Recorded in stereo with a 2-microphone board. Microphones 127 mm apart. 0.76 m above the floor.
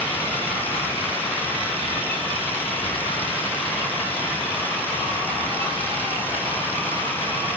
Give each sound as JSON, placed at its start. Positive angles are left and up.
{"t": 2.8, "sound": "whispering", "side_deg": 45, "distance_m": 1.1}